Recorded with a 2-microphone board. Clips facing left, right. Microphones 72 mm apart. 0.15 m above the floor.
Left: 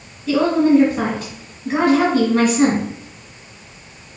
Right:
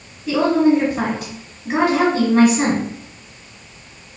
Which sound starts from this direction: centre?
A woman speaking, at 0.3 s.